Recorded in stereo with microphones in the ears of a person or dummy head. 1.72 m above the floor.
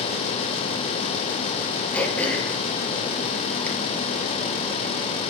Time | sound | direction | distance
1.9 | throat clearing | 5° left (ahead or behind) | 1.4 m